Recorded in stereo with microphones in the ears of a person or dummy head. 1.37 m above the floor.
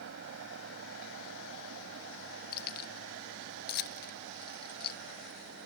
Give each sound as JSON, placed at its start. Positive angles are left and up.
{"t": 0.0, "sound": "a fan", "side_deg": -70}
{"t": 2.5, "sound": "keys jangling", "side_deg": 55}